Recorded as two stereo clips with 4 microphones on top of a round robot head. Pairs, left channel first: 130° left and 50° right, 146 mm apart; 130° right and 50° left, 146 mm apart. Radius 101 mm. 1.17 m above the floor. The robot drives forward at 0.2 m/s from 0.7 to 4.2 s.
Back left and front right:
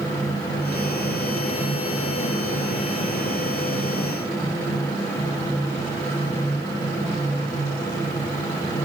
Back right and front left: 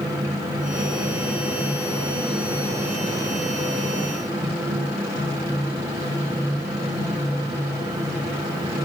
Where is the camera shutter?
No camera shutter in this recording.